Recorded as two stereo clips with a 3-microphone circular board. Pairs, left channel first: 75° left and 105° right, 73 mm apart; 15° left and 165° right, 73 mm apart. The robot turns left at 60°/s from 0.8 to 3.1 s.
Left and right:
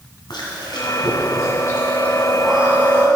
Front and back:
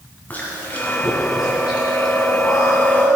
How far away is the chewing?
About 2 m.